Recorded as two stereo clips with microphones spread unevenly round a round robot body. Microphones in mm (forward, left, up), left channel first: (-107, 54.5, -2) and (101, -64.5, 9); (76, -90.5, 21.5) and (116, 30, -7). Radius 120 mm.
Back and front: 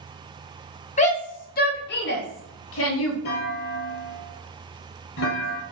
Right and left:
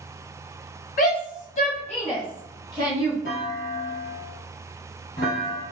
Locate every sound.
1.0 s a shout: 150° right, 2.0 m; by 3.1 s 170° left, 2.5 m
3.2 s a clunk: 160° right, 2.5 m